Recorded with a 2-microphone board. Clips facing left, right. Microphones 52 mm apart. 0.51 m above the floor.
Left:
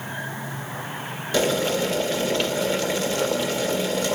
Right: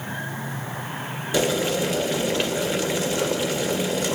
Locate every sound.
1.3 s boiling: 15° right (ahead or behind), 1.8 m